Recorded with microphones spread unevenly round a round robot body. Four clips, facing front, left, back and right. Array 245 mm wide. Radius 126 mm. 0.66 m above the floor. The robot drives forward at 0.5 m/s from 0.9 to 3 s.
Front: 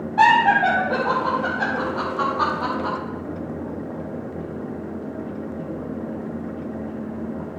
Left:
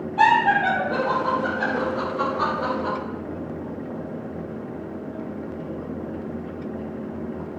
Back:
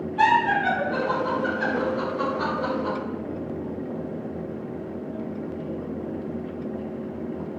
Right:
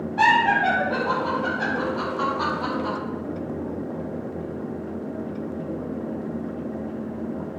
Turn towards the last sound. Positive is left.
turn(degrees=10)